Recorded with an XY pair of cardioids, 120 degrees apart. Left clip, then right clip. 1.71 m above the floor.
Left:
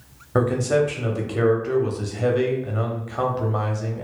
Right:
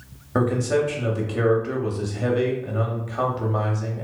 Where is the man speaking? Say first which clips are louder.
Left 2 dB; 5° left, 0.6 m.